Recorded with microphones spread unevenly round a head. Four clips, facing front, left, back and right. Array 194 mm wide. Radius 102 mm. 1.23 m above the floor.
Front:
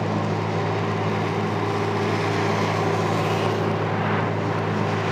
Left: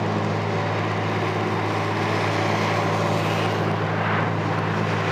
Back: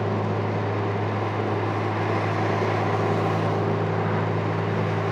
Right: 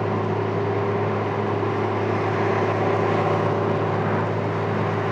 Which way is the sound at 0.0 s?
10° right.